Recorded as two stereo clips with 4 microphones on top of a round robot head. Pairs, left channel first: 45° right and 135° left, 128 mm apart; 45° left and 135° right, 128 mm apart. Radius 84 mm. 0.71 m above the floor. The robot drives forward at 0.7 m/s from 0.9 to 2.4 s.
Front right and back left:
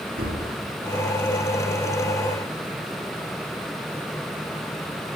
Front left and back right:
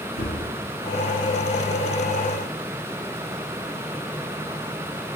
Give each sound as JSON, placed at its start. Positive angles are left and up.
{"t": 0.2, "sound": "a gunshot", "azimuth_deg": 85, "distance_m": 2.5}